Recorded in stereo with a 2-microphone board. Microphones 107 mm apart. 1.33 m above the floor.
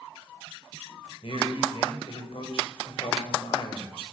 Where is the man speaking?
60° left (ahead or behind), 7.5 m.